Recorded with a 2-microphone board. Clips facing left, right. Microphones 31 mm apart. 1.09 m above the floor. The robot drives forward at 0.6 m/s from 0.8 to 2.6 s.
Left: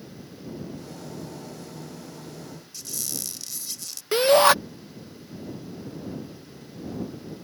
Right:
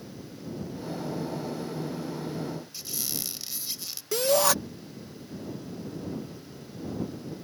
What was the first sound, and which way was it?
A squeak, 20° right (ahead or behind).